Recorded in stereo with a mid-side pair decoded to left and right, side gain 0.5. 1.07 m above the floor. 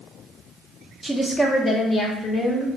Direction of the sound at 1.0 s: Straight ahead.